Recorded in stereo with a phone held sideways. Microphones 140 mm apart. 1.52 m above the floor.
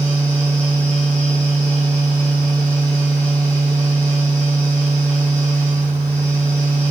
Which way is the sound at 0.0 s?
15° left (ahead or behind).